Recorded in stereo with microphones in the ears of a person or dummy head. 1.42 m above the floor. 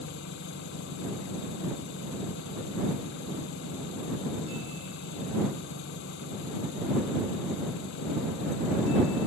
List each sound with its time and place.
0.0 s an engine running: 70° left (ahead or behind)